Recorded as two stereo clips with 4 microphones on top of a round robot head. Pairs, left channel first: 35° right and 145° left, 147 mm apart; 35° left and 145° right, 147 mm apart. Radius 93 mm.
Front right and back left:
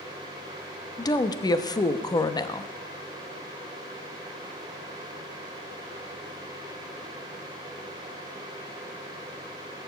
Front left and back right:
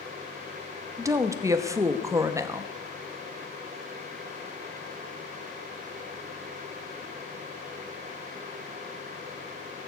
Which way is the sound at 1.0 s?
85° right.